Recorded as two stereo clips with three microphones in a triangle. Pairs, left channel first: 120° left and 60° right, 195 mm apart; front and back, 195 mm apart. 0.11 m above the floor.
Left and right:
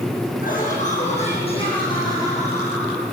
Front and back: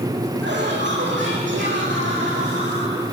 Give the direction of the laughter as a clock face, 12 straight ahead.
7 o'clock.